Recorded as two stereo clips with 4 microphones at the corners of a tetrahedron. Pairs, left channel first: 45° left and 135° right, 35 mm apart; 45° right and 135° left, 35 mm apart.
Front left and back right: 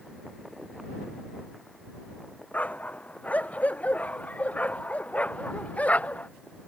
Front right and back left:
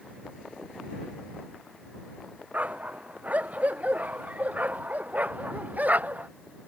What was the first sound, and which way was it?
A dog barking, 90° left.